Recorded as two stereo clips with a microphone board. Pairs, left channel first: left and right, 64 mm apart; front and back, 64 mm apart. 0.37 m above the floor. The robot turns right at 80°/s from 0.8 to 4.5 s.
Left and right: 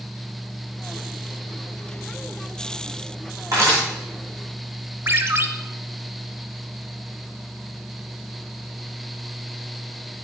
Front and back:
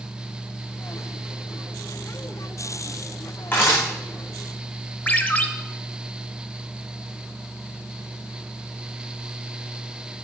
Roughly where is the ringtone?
Ahead right.